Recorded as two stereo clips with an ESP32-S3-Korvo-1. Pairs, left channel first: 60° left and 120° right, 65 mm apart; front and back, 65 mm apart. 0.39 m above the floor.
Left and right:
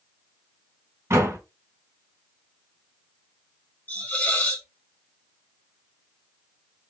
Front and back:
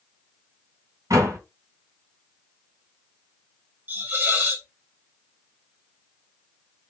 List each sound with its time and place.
1.1 s a door slam: 160° right, 2.0 m
3.9 s a hiss: 120° left, 1.3 m